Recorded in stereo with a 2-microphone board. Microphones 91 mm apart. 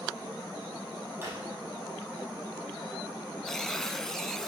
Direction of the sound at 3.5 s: 5° left (ahead or behind).